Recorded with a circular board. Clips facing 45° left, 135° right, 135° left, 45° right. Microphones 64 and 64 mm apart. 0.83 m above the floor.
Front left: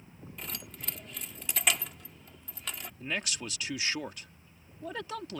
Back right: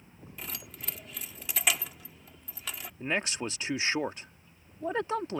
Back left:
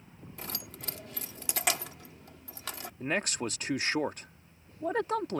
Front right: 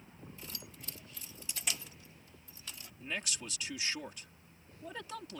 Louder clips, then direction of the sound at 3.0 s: Back right 5 dB, back left 9 dB; 170° left.